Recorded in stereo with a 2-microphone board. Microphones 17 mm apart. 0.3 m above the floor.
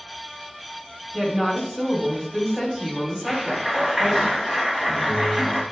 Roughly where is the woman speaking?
Right.